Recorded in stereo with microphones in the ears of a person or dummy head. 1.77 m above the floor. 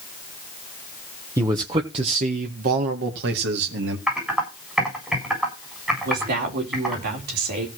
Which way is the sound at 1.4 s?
15° right (ahead or behind).